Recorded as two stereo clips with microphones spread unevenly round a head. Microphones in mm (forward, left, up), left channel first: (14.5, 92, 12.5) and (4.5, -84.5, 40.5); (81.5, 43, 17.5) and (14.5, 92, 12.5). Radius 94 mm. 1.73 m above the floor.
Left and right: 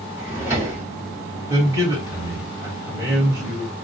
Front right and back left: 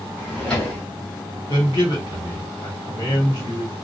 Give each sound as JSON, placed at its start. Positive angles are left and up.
{"t": 0.2, "sound": "a drawer", "azimuth_deg": -105, "distance_m": 0.9}
{"t": 1.5, "sound": "a man speaking", "azimuth_deg": -20, "distance_m": 1.4}